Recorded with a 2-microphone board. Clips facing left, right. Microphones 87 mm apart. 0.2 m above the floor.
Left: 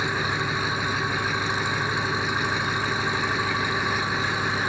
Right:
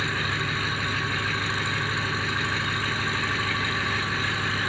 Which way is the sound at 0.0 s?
15° left (ahead or behind).